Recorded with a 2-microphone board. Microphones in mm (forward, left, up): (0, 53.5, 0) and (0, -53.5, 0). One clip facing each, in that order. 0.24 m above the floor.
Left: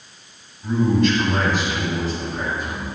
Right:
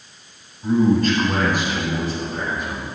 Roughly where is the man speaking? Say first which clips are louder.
Right 2 dB; right.